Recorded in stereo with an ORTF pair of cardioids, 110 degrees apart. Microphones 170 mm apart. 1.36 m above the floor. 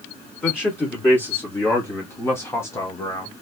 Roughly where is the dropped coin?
No dropped coin in this recording.